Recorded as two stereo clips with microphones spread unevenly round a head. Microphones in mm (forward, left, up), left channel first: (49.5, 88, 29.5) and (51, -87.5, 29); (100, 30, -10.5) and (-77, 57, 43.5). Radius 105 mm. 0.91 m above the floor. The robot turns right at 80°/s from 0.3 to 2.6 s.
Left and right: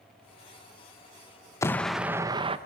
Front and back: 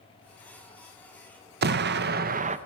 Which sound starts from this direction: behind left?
An explosion, at 1.6 s.